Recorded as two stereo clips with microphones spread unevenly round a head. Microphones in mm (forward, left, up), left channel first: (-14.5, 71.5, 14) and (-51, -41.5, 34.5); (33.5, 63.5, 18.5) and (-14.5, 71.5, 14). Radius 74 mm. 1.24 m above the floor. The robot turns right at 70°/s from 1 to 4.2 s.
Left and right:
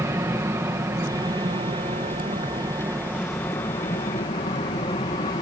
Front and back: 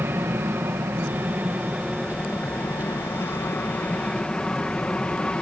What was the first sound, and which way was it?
An aircraft, 170° right.